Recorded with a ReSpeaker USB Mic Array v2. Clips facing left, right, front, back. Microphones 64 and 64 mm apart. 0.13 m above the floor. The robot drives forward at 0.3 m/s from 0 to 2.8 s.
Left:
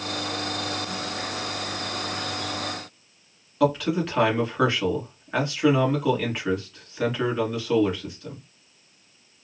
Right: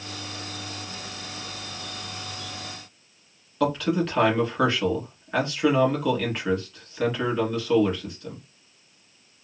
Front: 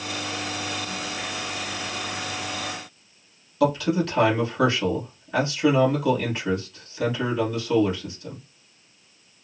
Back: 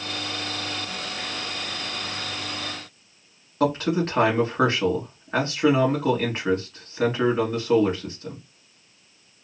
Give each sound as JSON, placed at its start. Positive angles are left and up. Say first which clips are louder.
{"t": 3.6, "sound": "a man speaking", "louder": "left 1 dB, front 1 dB", "azimuth_deg": 175, "distance_m": 1.4}